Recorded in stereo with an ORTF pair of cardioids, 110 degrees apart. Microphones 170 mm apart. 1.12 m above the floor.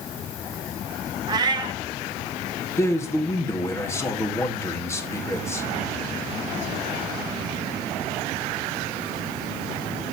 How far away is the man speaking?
About 1.9 m.